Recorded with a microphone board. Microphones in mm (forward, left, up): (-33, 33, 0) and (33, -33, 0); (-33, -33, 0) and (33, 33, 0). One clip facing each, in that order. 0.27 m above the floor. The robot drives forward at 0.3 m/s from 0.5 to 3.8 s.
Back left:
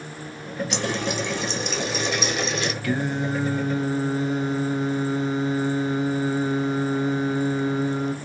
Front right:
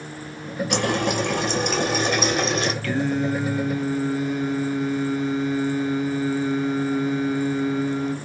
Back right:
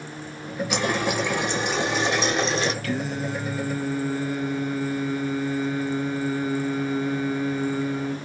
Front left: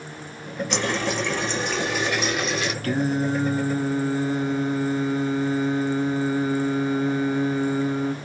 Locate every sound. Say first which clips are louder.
0.7 s a running tap: front right 5 dB, back right 1 dB; 55° right, 1.3 m; by 2.7 s 90° right, 1.1 m
2.8 s singing: front right 2 dB, front left 5 dB; 65° left, 0.8 m; by 8.1 s 95° left, 0.7 m